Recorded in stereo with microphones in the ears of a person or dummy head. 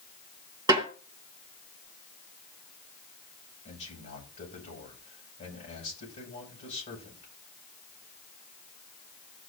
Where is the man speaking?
35° left (ahead or behind), 9 m.